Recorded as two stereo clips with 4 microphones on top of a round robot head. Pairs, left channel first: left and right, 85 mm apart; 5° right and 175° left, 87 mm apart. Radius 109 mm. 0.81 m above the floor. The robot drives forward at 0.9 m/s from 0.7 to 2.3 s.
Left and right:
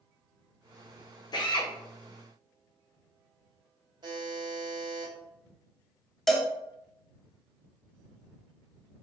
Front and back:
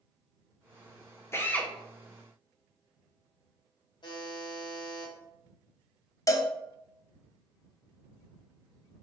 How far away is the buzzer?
About 0.9 m.